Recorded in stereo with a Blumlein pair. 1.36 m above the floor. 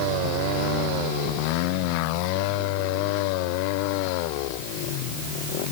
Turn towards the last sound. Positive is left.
No sound to turn to.